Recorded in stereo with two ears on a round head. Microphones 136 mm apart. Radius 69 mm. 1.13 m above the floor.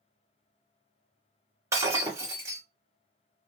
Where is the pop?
I don't hear a pop.